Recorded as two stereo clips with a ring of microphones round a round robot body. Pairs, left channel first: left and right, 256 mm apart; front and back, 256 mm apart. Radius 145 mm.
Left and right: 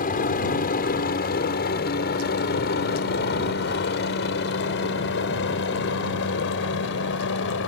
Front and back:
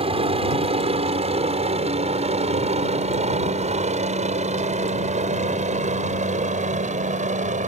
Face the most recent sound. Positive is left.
turn(degrees=125)